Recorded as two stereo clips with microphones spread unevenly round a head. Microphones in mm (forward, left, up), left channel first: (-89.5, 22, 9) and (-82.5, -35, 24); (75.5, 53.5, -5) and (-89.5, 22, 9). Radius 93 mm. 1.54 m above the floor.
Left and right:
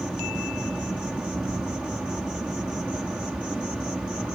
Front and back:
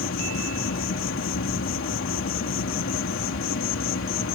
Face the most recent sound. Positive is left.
turn(degrees=0)